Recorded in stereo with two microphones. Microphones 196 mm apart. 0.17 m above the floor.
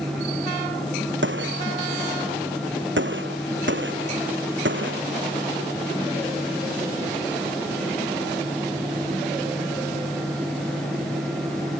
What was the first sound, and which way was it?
A gunshot, 70° right (ahead or behind).